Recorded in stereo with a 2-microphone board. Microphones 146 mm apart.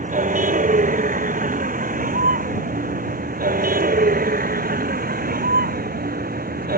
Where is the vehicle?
60° right (ahead or behind); by 6.8 s 85° right.